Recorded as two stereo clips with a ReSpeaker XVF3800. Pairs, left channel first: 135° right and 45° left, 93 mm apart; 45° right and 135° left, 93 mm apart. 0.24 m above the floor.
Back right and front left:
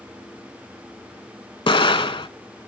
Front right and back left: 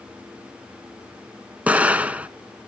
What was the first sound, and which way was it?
An explosion, 150° right.